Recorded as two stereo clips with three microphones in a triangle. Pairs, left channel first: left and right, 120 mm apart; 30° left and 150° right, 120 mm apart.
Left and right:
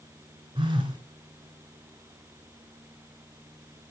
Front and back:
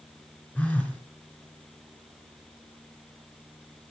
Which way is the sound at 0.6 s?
50° right.